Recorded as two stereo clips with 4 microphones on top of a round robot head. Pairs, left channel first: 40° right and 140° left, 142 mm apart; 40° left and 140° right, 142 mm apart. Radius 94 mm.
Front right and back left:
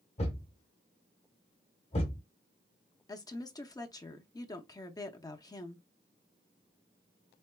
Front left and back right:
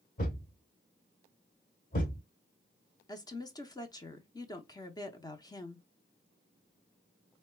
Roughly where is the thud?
Ahead.